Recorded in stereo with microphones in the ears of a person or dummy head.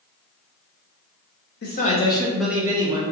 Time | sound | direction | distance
1.6 | a man speaking | 50° left (ahead or behind) | 0.6 m